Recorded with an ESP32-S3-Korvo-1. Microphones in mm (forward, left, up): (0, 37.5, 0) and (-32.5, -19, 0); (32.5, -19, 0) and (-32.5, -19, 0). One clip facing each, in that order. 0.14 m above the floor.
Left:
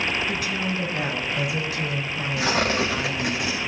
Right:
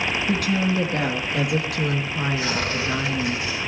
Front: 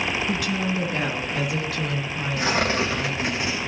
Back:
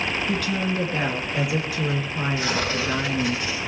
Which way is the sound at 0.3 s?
80° right.